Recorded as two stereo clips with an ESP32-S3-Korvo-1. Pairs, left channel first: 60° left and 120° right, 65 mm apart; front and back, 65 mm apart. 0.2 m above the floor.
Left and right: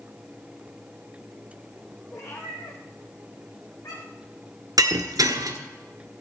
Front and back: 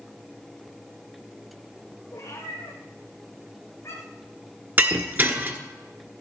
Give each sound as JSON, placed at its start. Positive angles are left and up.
{"t": 2.1, "sound": "a cat meowing", "azimuth_deg": 30, "distance_m": 4.0}
{"t": 4.8, "sound": "breaking glass", "azimuth_deg": -125, "distance_m": 1.4}